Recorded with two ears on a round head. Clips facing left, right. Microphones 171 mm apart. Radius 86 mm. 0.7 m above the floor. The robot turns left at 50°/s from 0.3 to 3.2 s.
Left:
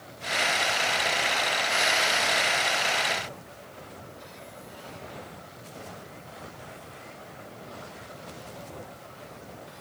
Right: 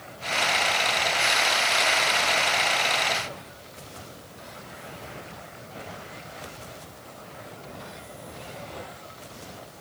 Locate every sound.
Only background noise.